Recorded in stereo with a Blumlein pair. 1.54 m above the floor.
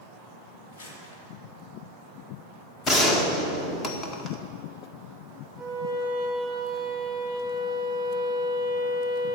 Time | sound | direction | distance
0.7 | crumpling | 55° left | 3.5 m
2.9 | a gunshot | 20° left | 1.7 m
5.6 | a violin | 15° left | 5.5 m